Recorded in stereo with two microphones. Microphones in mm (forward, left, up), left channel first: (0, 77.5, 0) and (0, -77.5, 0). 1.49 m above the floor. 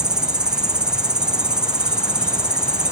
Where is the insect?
5° right (ahead or behind), 0.7 m.